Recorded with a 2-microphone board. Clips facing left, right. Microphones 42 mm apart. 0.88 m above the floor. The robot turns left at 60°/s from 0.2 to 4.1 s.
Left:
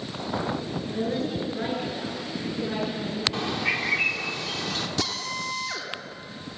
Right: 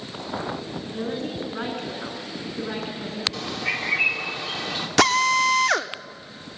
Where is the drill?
80° right, 0.9 m.